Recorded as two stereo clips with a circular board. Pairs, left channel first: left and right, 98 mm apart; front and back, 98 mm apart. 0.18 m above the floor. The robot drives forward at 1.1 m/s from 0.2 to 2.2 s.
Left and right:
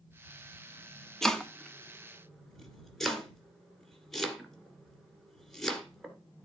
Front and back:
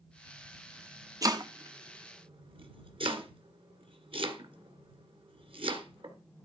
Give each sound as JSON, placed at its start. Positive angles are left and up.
{"t": 1.2, "sound": "chopping", "azimuth_deg": 170, "distance_m": 1.1}